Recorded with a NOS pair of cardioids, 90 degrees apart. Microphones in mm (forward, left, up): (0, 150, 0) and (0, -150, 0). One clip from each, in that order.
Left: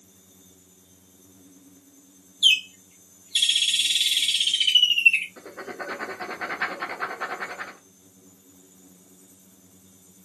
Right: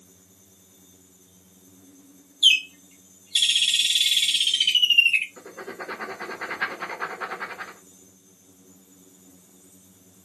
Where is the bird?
5° right, 0.5 m.